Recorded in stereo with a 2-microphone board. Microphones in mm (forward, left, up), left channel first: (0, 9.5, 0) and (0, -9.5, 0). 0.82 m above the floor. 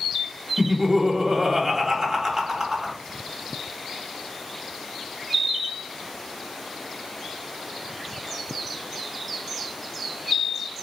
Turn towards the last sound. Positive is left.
turn(degrees=-35)  # may be behind; listen again after turning